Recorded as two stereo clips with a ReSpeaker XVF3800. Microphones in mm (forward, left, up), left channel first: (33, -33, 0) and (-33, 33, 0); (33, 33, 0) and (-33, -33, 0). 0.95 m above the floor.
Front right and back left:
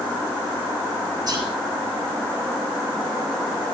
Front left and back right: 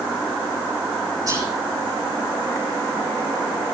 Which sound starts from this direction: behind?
Whispering, at 1.3 s.